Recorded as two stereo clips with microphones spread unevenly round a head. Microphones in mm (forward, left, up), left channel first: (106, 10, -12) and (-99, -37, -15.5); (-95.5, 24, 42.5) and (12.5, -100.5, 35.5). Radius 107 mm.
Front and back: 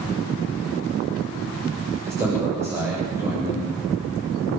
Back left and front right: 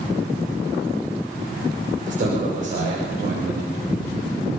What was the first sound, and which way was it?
A man speaking, 90° right.